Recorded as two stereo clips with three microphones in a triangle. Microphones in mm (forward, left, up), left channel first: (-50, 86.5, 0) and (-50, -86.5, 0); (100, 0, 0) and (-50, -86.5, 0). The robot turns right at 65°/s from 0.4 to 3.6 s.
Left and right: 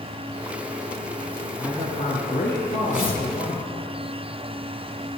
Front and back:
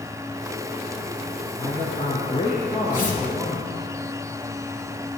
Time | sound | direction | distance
1.6 | a man speaking | 20° left | 2.5 m
2.9 | tearing paper | 55° left | 4 m